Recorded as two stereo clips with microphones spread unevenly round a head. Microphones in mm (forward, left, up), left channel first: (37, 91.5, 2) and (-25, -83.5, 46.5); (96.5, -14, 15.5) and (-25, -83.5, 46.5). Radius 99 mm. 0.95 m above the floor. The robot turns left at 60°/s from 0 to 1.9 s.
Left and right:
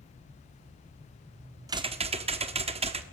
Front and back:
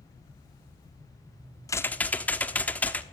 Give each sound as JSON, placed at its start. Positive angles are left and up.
{"t": 1.7, "sound": "typing on a keyboard", "azimuth_deg": -40, "distance_m": 1.2}